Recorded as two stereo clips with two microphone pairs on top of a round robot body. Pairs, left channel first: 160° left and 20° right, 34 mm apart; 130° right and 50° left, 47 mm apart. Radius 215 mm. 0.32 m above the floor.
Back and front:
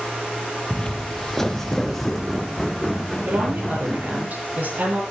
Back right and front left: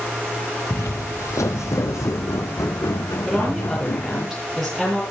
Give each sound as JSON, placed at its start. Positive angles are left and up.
{"t": 0.7, "sound": "footsteps", "azimuth_deg": -140, "distance_m": 0.5}
{"t": 3.3, "sound": "a woman speaking", "azimuth_deg": -40, "distance_m": 10.0}